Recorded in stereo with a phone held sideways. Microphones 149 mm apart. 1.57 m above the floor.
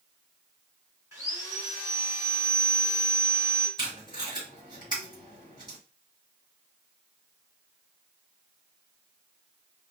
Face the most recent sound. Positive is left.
turn(degrees=-30)  # may be behind; listen again after turning